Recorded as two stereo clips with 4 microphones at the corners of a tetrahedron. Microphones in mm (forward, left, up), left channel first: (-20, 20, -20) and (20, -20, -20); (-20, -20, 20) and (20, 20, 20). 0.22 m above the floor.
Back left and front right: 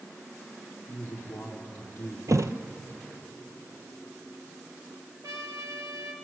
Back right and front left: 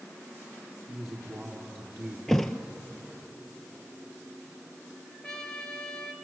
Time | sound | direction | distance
0.9 | a man speaking | 75° left | 5 m
2.3 | a thud | 50° right | 1.1 m
5.2 | a trumpet | 60° right | 2.5 m